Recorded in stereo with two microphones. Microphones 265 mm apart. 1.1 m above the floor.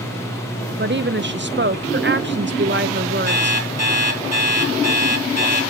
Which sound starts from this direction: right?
A woman speaking, at 0.8 s.